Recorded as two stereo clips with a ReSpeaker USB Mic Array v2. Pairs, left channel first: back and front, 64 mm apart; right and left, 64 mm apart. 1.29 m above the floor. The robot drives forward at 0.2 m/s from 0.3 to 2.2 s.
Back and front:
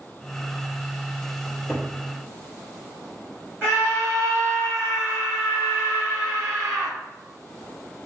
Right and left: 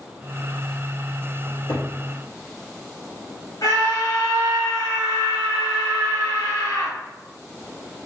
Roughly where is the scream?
Right.